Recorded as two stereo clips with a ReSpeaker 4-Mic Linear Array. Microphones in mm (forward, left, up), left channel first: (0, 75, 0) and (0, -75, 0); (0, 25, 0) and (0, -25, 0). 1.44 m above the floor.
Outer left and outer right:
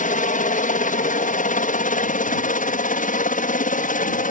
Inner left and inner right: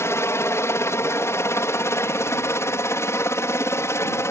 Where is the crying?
I don't hear crying.